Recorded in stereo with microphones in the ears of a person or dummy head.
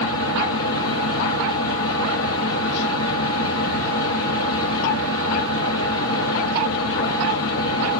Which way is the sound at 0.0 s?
65° left (ahead or behind).